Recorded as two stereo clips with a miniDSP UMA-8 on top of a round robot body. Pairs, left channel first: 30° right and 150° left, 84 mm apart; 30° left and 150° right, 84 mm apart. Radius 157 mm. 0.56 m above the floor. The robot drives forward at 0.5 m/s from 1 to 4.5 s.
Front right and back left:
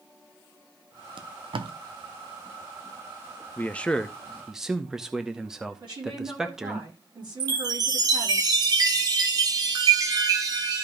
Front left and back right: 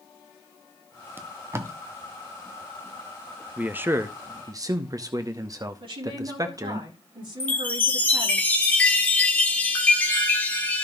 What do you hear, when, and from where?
1.2 s tape being pulled: 145° left, 0.9 m; by 1.7 s 155° left, 1.1 m
3.6 s a man speaking: 85° right, 1.0 m; by 6.8 s 130° right, 1.1 m
5.8 s a woman speaking: 175° right, 6.5 m
7.4 s a chime: 105° left, 1.1 m